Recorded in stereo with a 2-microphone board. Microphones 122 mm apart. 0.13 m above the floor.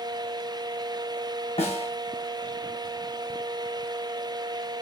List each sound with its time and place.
1.6 s a snare drum: 60° left (ahead or behind), 1.2 m